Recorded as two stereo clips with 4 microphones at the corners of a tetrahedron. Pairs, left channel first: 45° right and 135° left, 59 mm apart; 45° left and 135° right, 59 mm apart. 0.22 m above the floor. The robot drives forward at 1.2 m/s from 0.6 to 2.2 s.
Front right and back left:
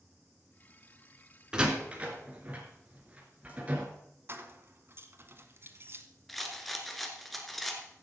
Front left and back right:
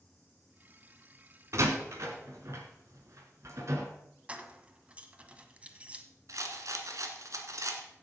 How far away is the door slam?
About 1.8 m.